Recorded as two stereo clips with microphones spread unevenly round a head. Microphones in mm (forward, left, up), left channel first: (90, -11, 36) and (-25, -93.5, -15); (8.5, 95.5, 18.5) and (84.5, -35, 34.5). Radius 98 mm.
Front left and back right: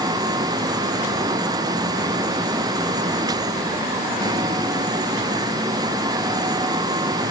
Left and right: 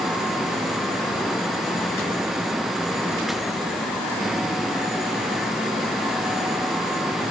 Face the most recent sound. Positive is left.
No sound to turn to.